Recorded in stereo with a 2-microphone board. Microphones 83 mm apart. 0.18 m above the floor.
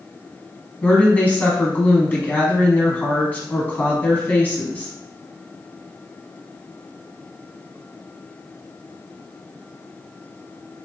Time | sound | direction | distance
0.8 | a woman speaking | 20° left (ahead or behind) | 1.3 m